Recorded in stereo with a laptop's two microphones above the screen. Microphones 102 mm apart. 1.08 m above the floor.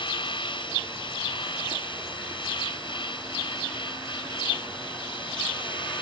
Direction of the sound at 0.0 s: 50° left (ahead or behind).